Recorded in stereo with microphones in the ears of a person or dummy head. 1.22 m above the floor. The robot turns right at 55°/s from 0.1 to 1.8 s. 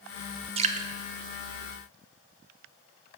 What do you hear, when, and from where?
0.6 s dripping: 25° right (ahead or behind), 0.5 m; by 0.9 s 40° right (ahead or behind), 0.5 m